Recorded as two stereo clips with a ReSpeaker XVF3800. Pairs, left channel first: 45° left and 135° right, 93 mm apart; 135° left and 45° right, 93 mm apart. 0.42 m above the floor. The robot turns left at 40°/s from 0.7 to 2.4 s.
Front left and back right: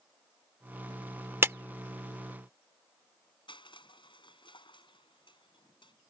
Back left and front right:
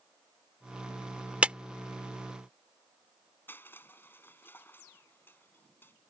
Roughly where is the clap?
Right.